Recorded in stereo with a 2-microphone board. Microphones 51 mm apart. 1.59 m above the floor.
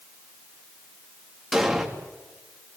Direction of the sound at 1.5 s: 5° right (ahead or behind).